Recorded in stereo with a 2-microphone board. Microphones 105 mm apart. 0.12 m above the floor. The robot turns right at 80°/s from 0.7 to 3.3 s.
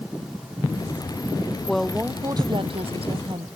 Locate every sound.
1.7 s a woman speaking: 170° left; by 3.5 s 60° right